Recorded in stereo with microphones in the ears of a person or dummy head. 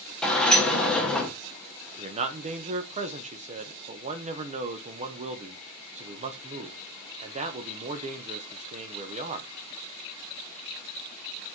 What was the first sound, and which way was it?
A sliding door, 5° left (ahead or behind).